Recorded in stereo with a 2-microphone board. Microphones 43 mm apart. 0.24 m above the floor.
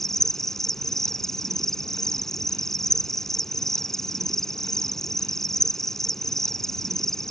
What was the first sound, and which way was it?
An insect, 10° left (ahead or behind).